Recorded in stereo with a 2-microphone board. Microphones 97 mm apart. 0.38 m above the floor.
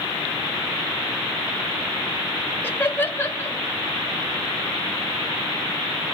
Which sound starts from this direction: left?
Laughter, at 2.6 s.